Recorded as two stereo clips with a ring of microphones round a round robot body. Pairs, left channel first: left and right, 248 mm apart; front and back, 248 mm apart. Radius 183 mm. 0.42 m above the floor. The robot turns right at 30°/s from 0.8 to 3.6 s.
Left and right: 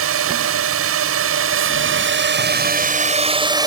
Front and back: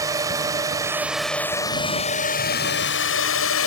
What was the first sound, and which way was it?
A drone, 105° right.